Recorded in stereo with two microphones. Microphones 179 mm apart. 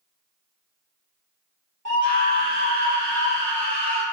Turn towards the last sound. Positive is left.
turn(degrees=85)